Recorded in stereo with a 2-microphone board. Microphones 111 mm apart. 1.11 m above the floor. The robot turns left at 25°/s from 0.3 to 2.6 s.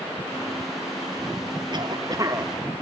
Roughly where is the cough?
Right.